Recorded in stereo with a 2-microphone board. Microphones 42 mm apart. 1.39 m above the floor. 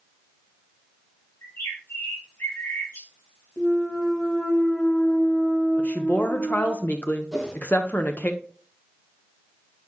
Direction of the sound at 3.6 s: 55° left (ahead or behind).